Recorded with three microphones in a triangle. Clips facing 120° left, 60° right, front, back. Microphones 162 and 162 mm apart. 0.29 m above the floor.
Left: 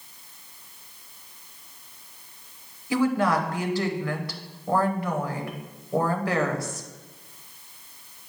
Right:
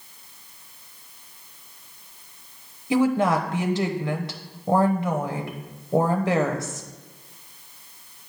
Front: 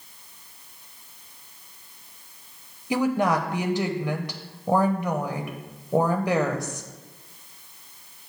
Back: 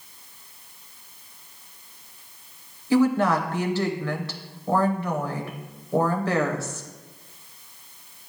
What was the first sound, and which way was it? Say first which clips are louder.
A woman speaking: right 2 dB, back 3 dB; 45° right.